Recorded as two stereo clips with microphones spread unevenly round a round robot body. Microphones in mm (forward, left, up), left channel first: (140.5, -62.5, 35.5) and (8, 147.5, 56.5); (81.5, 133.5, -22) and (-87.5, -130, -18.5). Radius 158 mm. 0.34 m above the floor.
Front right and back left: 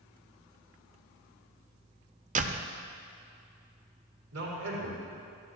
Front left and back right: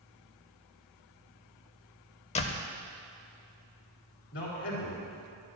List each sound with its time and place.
2.4 s a door slam: 95° left, 0.6 m
4.3 s a man speaking: 110° left, 4 m